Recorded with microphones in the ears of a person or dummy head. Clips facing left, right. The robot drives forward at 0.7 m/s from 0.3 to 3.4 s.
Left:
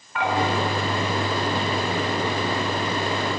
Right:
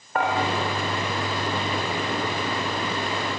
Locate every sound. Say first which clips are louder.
0.1 s dishes clattering: right 1 dB; 45° right (ahead or behind), 3.5 m